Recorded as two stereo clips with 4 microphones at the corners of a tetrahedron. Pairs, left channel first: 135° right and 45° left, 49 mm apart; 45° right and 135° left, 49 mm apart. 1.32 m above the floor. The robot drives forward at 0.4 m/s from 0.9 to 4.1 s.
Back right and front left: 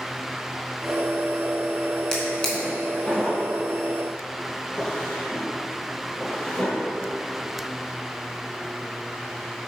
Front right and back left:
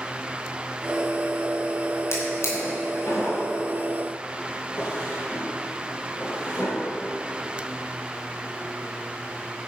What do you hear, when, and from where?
2.1 s a drawer: 60° right, 3 m; by 6.7 s 75° right, 3 m